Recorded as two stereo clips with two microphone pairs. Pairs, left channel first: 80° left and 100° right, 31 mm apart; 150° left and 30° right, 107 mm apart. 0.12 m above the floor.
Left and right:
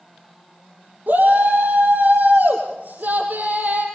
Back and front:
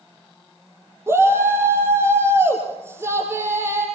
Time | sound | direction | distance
1.1 | a shout | 95° right | 3 m